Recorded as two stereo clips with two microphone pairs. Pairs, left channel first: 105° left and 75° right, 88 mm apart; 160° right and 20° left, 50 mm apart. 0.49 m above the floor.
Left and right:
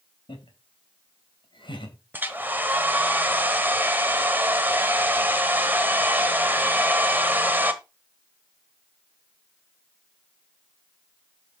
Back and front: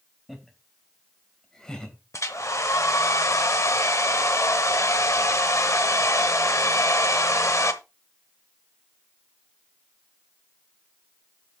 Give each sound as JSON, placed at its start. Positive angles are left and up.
{"t": 0.3, "sound": "laughter", "azimuth_deg": 105, "distance_m": 3.0}
{"t": 2.1, "sound": "a hair dryer", "azimuth_deg": -145, "distance_m": 1.1}